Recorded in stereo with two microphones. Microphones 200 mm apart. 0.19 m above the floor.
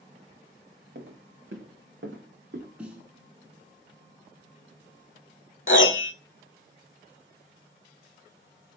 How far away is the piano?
About 0.6 m.